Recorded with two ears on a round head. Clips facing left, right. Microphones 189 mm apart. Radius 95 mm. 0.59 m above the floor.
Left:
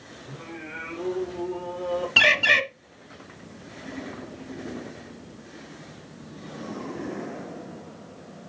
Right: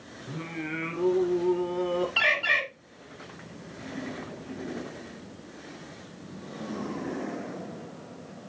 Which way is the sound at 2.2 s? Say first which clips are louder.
Left 6 dB; 65° left (ahead or behind).